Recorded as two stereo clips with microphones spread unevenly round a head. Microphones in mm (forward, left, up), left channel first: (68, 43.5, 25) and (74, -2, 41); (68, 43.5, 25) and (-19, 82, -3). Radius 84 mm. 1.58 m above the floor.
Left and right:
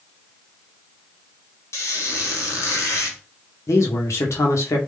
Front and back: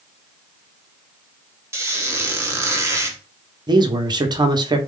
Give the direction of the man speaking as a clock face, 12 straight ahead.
8 o'clock.